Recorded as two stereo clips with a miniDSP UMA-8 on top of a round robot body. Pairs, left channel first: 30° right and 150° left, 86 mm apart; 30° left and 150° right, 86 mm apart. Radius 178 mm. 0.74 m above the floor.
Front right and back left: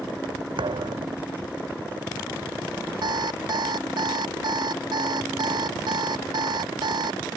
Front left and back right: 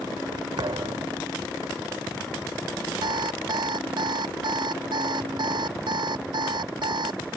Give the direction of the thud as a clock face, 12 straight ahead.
6 o'clock.